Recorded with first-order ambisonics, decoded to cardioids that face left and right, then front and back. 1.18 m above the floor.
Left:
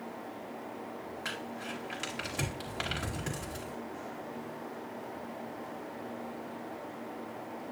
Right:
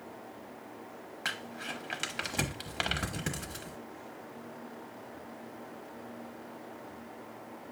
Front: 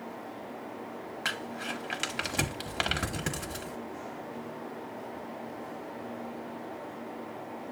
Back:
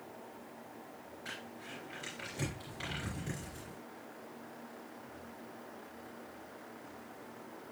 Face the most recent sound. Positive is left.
turn(degrees=-20)